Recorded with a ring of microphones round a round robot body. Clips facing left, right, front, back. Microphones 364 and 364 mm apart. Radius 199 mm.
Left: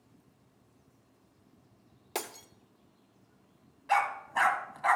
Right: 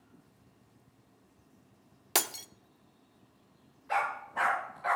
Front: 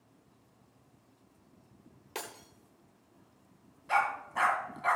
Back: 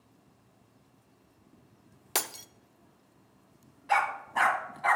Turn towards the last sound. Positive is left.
turn(degrees=105)